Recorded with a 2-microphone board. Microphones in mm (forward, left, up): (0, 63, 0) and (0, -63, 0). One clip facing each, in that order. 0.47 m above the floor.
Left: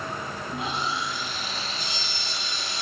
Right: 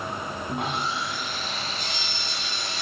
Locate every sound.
0.5 s sawing: 60° right (ahead or behind), 1.0 m